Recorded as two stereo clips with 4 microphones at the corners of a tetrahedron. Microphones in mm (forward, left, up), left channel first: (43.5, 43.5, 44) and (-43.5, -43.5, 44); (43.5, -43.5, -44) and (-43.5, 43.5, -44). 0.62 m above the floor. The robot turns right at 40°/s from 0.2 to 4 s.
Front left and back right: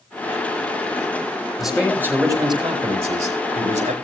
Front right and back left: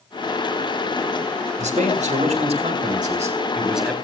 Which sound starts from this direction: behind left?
A man speaking, at 1.6 s.